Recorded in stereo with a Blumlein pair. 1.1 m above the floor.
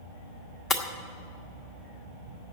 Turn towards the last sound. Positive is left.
turn(degrees=20)